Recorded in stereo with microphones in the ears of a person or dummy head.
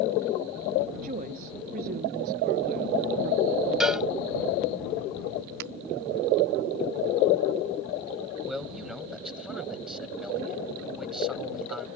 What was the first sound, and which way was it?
A woman speaking, 45° right (ahead or behind).